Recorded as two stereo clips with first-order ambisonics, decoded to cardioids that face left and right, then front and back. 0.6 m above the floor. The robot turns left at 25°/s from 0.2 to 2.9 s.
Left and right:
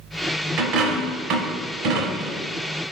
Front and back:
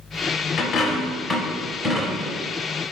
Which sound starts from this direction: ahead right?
A dropped coin, at 0.6 s.